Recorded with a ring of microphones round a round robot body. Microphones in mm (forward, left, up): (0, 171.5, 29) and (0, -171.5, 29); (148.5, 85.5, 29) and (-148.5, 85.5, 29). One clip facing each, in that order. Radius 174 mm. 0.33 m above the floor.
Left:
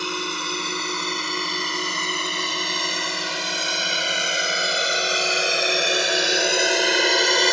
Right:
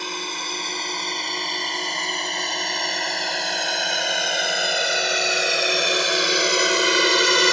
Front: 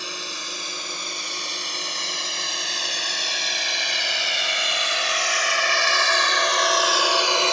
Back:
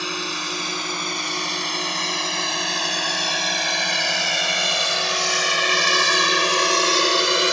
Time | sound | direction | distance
0.0 | a drone | 165° left | ?